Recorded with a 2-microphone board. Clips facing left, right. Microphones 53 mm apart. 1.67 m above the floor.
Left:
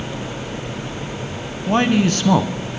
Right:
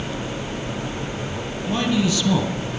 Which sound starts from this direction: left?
A man speaking, at 1.7 s.